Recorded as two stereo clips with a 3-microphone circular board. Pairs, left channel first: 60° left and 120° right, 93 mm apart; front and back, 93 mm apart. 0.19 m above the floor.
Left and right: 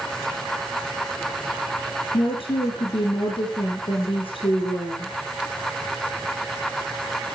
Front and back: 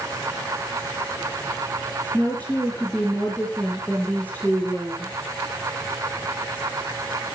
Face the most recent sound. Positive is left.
turn(degrees=75)